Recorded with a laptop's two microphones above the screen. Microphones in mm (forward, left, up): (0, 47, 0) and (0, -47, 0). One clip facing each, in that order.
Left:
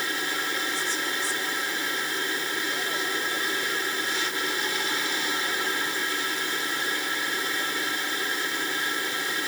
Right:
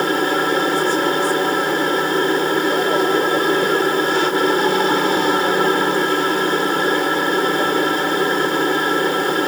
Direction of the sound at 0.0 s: 60° right (ahead or behind).